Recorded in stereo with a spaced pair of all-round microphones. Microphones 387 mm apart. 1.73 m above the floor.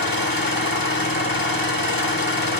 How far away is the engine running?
About 1.3 m.